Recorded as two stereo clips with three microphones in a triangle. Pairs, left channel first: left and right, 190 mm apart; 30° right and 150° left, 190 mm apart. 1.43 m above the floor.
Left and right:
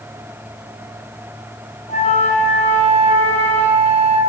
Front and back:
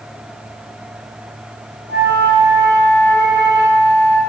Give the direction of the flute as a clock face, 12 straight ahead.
7 o'clock.